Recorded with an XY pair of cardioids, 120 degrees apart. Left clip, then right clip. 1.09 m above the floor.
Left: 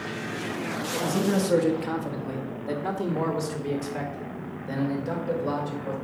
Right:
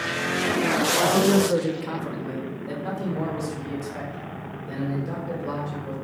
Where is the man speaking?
20° right, 1.0 m; by 5.9 s 30° left, 5 m.